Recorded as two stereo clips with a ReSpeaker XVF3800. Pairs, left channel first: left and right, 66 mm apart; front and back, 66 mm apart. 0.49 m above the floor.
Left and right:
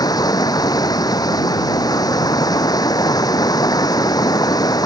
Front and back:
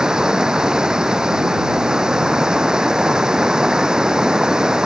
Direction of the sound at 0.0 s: 100° left.